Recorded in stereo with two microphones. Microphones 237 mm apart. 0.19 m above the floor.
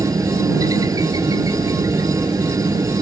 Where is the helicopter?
15° right (ahead or behind).